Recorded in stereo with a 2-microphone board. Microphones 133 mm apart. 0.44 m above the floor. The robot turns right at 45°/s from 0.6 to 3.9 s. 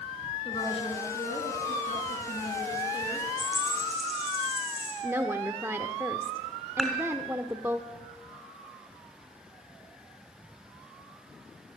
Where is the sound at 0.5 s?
40° left, 5 m; by 3.3 s 160° left, 5 m.